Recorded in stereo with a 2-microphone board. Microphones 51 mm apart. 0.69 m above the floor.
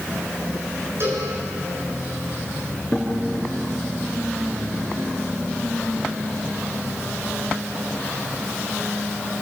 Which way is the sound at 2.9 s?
15° left (ahead or behind).